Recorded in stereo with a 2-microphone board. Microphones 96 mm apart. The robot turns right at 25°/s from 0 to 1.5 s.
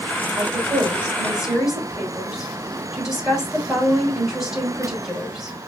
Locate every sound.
0.4 s a woman speaking: 30° right (ahead or behind), 2.5 m; by 5.6 s 5° right (ahead or behind), 2.5 m